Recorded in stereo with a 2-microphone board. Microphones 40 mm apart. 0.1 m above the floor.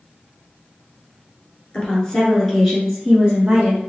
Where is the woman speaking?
25° left (ahead or behind), 1.5 m; by 3.9 s 25° right (ahead or behind), 1.6 m.